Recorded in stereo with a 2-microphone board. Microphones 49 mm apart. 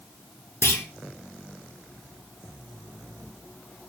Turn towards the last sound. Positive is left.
turn(degrees=75)  # may be behind; listen again after turning